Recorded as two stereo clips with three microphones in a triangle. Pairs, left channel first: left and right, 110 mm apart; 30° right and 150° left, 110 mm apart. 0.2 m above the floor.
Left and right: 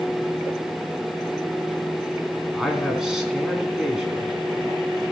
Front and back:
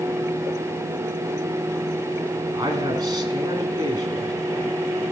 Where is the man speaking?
175° right, 2 m.